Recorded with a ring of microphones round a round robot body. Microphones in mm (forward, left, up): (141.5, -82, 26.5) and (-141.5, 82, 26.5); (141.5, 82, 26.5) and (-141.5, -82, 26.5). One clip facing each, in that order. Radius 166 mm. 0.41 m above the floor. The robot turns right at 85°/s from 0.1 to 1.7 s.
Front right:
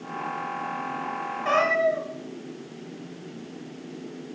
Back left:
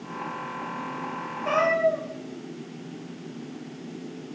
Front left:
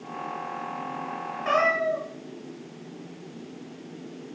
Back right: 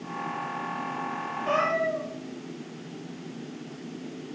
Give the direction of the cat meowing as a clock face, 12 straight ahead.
11 o'clock.